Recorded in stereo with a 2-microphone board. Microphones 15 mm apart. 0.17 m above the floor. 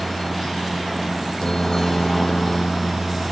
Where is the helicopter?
45° left (ahead or behind).